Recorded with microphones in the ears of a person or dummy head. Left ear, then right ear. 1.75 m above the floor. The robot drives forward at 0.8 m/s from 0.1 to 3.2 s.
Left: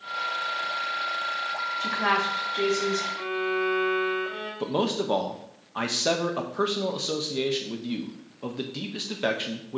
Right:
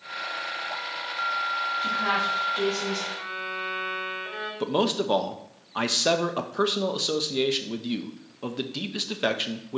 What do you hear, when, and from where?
1.8 s a woman speaking: 25° left (ahead or behind), 1.4 m; by 3.1 s 15° left (ahead or behind), 2.5 m
3.2 s a violin: 5° left (ahead or behind), 4 m
4.6 s a man speaking: 10° right (ahead or behind), 0.7 m